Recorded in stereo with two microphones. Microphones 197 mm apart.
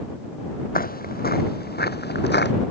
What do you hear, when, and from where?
0.8 s footsteps: 50° left (ahead or behind); by 2.5 s 60° left (ahead or behind)